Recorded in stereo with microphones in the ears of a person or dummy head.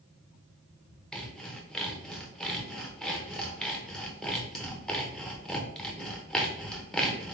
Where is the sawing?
Centre (ahead or behind), 0.8 m.